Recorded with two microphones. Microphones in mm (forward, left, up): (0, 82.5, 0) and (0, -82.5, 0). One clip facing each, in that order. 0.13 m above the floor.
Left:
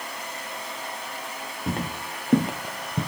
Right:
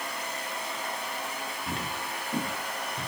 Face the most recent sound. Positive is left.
turn(degrees=75)  # may be behind; listen again after turning